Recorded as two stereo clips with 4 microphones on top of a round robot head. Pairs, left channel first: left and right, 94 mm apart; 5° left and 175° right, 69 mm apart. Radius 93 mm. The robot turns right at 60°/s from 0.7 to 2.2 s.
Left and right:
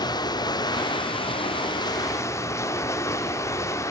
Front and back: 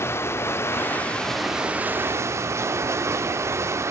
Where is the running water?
55° left, 0.9 m; by 3.9 s 145° left, 0.9 m.